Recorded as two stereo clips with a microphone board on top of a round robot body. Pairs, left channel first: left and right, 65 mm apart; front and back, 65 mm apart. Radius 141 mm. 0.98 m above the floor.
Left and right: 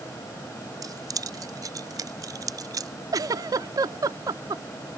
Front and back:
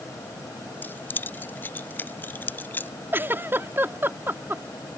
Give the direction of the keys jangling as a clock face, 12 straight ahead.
2 o'clock.